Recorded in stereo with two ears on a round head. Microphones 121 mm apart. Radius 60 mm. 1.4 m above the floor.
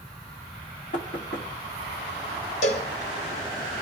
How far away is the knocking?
About 2 m.